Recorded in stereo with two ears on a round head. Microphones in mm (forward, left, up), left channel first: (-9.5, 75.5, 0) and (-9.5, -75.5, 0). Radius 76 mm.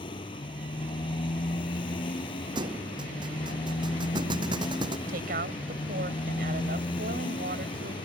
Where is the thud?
30° right (ahead or behind).